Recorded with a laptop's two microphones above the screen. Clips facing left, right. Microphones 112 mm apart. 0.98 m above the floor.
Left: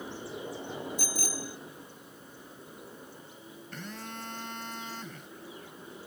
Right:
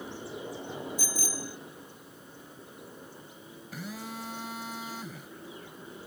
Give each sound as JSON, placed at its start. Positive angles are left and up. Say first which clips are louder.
{"t": 1.0, "sound": "a bicycle bell", "louder": "even", "side_deg": 60}
{"t": 3.7, "sound": "a phone buzzing", "louder": "right 3 dB", "side_deg": -5}